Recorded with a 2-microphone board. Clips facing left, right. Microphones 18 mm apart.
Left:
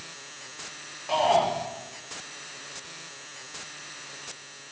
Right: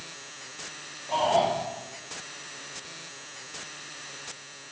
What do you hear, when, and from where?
1.1 s a shout: 65° left (ahead or behind), 5.5 m